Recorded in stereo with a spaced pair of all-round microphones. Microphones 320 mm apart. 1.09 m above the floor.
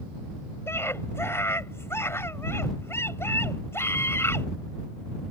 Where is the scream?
10° left (ahead or behind).